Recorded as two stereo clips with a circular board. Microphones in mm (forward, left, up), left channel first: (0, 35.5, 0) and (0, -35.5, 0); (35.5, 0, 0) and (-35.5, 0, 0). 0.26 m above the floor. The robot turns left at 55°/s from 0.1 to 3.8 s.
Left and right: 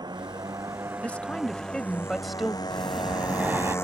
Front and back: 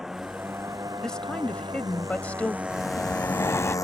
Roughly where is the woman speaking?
Left.